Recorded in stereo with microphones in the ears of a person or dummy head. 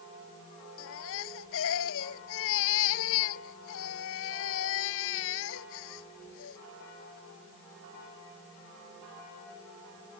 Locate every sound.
0.8 s a baby crying: 75° left (ahead or behind)